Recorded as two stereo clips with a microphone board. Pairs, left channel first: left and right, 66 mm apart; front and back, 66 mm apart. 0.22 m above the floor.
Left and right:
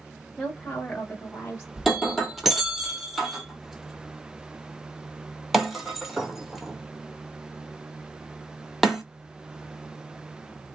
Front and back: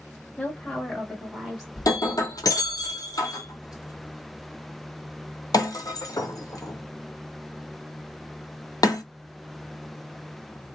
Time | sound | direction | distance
0.4 | a woman speaking | 10° left | 1.0 m
1.8 | breaking glass | straight ahead | 0.8 m